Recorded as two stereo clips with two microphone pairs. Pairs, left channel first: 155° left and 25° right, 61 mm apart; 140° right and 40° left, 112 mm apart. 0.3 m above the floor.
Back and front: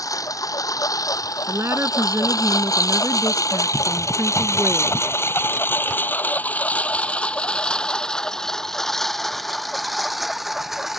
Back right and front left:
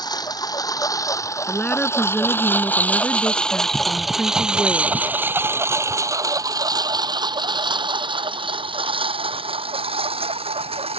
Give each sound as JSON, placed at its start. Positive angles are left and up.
{"t": 0.0, "sound": "a lawn mower", "azimuth_deg": 170}
{"t": 1.5, "sound": "a woman speaking", "azimuth_deg": -70}